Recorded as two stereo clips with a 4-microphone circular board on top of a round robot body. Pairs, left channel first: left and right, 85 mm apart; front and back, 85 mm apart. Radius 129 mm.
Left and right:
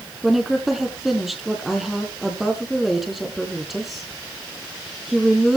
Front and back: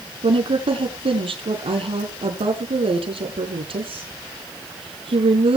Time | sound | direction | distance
0.2 | a woman speaking | straight behind | 5 m